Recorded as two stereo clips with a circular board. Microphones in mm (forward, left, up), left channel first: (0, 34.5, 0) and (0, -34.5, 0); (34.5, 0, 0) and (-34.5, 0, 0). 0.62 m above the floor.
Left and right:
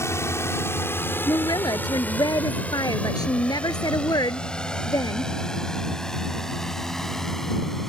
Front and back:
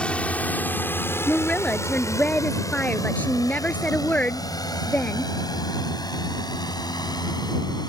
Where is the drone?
70° left; by 7.9 s 5° left.